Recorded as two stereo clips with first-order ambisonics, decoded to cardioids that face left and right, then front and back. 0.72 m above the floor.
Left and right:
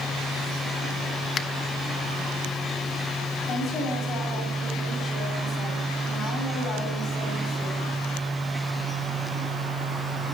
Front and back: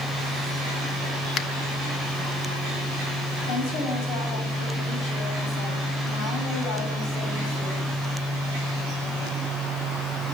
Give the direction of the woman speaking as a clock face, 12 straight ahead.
11 o'clock.